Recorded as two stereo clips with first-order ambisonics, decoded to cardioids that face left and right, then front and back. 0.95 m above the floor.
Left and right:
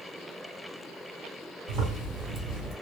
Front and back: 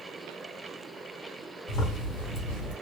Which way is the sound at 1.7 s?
40° right.